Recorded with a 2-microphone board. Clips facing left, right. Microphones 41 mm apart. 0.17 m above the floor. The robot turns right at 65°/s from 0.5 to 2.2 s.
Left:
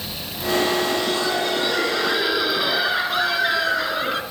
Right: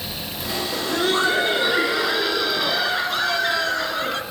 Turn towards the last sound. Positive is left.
turn(degrees=10)